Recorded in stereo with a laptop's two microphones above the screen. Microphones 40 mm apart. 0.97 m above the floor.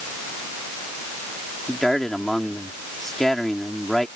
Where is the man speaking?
10° left (ahead or behind).